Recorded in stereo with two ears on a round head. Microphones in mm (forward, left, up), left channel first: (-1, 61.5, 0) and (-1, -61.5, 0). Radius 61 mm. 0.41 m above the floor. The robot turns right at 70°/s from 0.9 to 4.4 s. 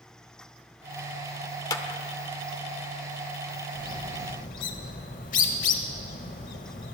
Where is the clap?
25° left (ahead or behind), 0.7 m; by 2.0 s 30° left (ahead or behind), 0.7 m.